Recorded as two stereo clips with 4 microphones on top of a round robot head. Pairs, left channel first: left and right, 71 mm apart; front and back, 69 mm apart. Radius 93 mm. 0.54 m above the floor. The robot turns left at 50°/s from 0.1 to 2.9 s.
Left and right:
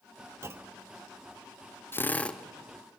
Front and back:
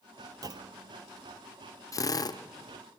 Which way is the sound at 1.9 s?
30° left.